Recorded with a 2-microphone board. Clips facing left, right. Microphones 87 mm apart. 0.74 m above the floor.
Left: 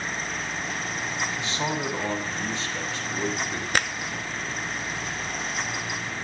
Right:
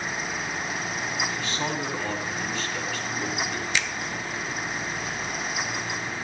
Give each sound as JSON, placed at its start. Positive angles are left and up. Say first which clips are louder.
{"t": 1.3, "sound": "a man speaking", "louder": "left 1 dB", "side_deg": 20, "distance_m": 7.0}
{"t": 3.7, "sound": "a finger snap", "louder": "left 5 dB", "side_deg": 50, "distance_m": 0.7}